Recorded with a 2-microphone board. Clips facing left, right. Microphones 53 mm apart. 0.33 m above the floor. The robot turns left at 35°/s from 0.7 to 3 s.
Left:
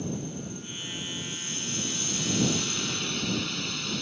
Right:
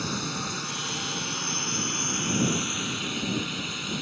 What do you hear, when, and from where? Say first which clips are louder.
0.0 s a drone: right 3 dB; 95° right; by 4.0 s 175° right